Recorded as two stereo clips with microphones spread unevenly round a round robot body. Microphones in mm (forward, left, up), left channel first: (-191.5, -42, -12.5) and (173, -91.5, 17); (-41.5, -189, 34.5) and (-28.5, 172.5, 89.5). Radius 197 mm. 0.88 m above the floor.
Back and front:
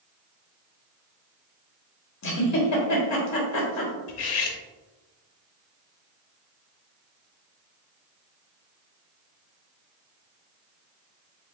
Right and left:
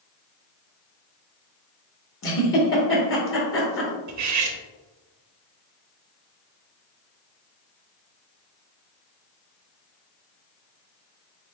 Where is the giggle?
145° right, 1.6 m.